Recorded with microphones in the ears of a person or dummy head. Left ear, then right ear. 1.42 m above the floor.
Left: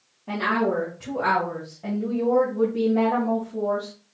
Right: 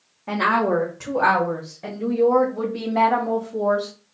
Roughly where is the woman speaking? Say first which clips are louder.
Right 4 dB; right.